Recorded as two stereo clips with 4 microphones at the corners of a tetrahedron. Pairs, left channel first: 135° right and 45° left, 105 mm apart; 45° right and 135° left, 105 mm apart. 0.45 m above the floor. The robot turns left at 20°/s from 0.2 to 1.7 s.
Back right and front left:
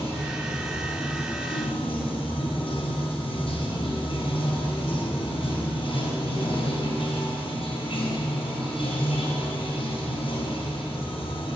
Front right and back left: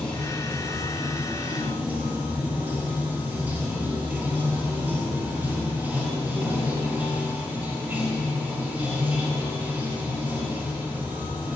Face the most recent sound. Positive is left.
turn(degrees=-155)